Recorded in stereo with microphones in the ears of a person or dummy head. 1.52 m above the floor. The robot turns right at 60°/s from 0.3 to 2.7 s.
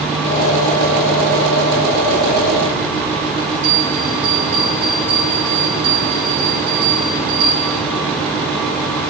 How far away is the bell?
About 6.5 m.